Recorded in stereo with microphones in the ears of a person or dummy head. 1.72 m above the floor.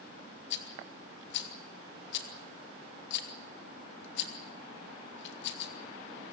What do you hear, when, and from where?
0.5 s a rattle: 70° left (ahead or behind), 1.7 m